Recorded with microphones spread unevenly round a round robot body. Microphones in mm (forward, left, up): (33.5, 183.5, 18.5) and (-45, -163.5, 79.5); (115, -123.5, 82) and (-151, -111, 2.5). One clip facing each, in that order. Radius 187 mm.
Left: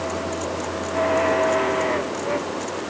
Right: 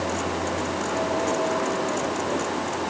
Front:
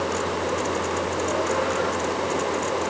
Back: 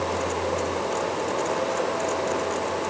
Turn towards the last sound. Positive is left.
No sound to turn to.